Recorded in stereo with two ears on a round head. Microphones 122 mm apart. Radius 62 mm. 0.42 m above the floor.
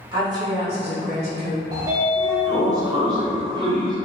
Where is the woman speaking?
25° right (ahead or behind), 0.9 m; by 1.6 s 50° right (ahead or behind), 1.6 m.